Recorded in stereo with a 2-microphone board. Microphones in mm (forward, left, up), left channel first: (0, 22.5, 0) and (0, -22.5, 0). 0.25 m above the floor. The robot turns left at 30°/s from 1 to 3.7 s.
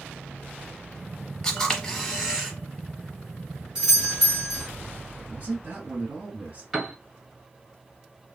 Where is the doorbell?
20° right (ahead or behind), 1.6 m.